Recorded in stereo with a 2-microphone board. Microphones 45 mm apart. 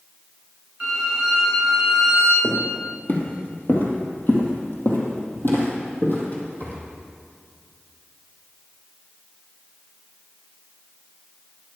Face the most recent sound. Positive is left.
turn(degrees=40)  # may be behind; listen again after turning